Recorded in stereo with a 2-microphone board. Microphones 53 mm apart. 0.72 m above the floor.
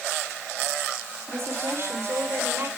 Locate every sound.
1.3 s a woman speaking: 55° right (ahead or behind), 2 m; by 2.7 s 50° right (ahead or behind), 3.5 m